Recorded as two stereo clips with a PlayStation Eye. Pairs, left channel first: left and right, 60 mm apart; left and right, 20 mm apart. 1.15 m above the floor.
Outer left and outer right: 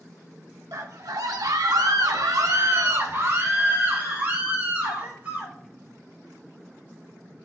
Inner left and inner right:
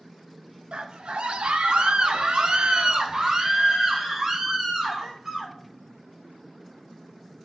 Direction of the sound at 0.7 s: 65° right (ahead or behind).